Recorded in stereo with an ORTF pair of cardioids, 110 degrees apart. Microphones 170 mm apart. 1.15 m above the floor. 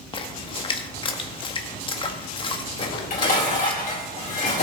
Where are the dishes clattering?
45° left, 3.5 m.